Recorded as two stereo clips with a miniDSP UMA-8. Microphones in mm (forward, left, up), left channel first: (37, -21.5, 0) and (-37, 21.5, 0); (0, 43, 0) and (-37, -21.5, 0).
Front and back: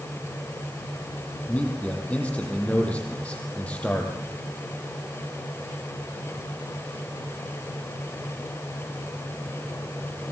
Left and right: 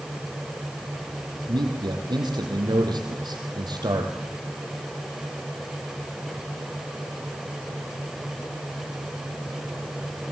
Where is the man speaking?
105° right, 5.5 m.